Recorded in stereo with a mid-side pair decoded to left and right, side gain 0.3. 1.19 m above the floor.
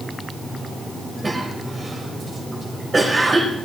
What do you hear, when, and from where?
1.2 s a cough: 35° right, 7 m